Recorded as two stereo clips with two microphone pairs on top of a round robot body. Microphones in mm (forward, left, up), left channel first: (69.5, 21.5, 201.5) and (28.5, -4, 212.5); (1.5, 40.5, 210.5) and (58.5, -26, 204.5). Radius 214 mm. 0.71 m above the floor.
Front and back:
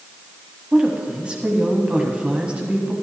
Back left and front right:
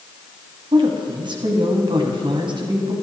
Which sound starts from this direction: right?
A woman speaking, at 0.7 s.